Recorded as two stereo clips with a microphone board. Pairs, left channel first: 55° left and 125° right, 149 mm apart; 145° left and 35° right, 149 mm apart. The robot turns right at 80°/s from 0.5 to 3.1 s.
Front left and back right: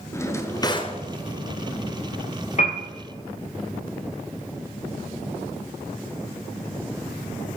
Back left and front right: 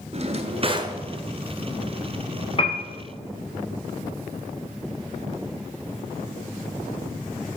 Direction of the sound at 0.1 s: 10° right.